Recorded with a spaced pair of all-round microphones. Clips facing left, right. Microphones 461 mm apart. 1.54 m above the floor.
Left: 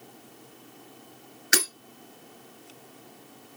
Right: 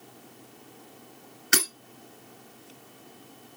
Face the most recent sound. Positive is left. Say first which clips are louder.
# even
turn(degrees=-20)  # may be behind; listen again after turning